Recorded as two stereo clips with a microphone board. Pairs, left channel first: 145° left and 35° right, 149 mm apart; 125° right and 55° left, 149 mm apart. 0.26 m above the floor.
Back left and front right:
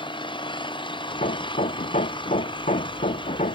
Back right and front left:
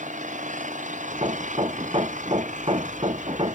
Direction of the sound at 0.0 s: 90° left.